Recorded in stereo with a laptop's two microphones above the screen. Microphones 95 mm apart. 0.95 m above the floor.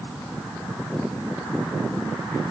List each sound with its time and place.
Only background noise.